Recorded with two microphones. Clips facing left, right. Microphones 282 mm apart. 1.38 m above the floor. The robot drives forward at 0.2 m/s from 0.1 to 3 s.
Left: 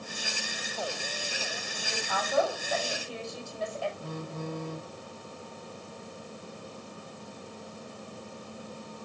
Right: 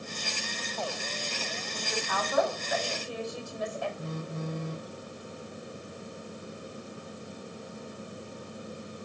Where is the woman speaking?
90° right, 5 m; by 3.9 s 85° right, 5 m.